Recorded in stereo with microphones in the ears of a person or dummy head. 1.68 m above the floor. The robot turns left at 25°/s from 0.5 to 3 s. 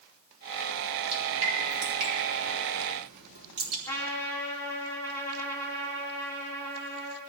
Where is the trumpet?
15° left (ahead or behind), 2.5 m.